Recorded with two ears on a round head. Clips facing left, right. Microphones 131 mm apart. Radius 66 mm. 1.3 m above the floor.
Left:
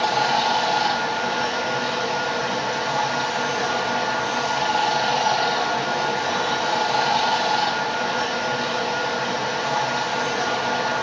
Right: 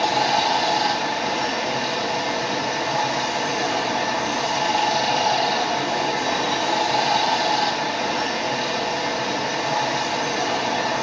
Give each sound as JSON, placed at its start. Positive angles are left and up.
{"t": 0.0, "sound": "running water", "side_deg": -15, "distance_m": 0.8}